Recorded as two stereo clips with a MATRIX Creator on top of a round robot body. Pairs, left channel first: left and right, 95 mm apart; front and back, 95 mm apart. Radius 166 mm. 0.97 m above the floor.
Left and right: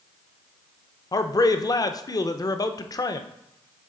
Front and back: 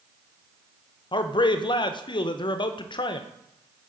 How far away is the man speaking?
About 0.6 m.